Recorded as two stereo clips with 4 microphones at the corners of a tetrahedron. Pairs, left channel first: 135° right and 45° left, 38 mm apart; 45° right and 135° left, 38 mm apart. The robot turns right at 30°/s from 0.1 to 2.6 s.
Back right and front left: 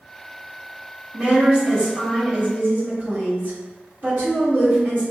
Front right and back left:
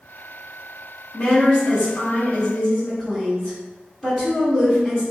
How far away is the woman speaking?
About 1.5 m.